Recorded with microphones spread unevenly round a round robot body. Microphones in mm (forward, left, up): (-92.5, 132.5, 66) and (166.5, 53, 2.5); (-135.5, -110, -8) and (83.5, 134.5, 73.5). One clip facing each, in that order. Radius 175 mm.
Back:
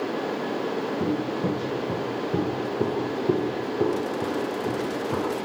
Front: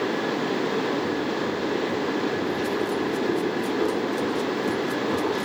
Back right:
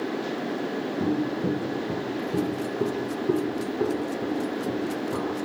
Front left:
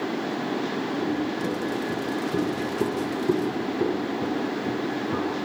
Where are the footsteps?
175° left, 2.5 m; by 5.3 s 105° left, 6.5 m.